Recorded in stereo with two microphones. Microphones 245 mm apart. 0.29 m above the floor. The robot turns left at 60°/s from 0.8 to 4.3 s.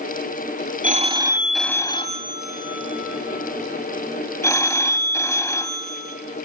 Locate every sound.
0.8 s a phone ringing: 140° right, 1.3 m; by 6.2 s 15° left, 1.3 m